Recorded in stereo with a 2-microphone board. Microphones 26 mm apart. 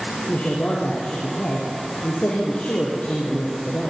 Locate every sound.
0.3 s a woman speaking: 70° left (ahead or behind), 5.5 m